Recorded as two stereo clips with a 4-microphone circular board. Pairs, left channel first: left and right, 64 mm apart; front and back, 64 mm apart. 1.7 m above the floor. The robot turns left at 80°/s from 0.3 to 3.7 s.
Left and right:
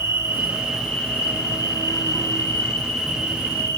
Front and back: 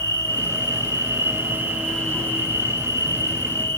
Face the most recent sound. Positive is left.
turn(degrees=-50)